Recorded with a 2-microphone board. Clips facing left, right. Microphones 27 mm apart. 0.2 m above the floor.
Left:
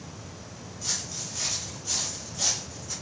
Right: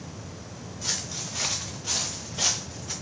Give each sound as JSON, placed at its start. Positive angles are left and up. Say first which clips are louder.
{"t": 0.8, "sound": "footsteps", "louder": "right 2 dB", "side_deg": -40, "distance_m": 1.1}